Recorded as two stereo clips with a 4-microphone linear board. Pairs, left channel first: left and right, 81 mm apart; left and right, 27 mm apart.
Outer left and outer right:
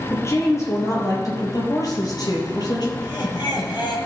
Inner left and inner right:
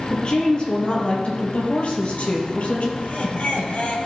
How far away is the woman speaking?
About 4.5 m.